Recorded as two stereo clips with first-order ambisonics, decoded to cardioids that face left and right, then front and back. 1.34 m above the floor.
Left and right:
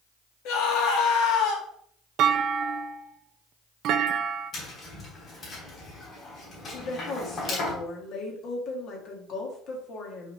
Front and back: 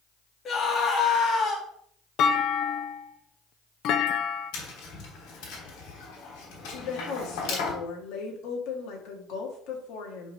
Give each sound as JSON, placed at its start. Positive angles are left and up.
{"t": 0.5, "sound": "a scream", "azimuth_deg": 65, "distance_m": 2.0}
{"t": 2.2, "sound": "a clunk", "azimuth_deg": -45, "distance_m": 0.6}
{"t": 4.5, "sound": "tapping", "azimuth_deg": 25, "distance_m": 3.0}
{"t": 6.7, "sound": "a woman speaking", "azimuth_deg": 35, "distance_m": 2.0}